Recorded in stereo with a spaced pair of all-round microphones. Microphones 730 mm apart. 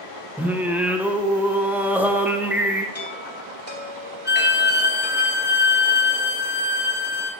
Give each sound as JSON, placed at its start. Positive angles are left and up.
{"t": 0.4, "sound": "singing", "side_deg": 0, "distance_m": 0.6}
{"t": 3.0, "sound": "a chime", "side_deg": 15, "distance_m": 1.6}
{"t": 4.2, "sound": "a violin", "side_deg": 35, "distance_m": 1.0}